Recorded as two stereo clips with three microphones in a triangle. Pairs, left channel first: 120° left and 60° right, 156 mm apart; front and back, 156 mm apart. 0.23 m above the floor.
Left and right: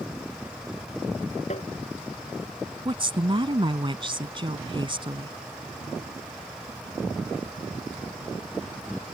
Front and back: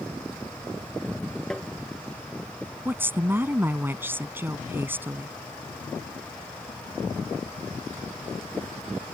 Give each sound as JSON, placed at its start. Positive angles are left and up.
{"t": 1.5, "sound": "tapping", "azimuth_deg": 85}
{"t": 2.9, "sound": "a woman speaking", "azimuth_deg": -105}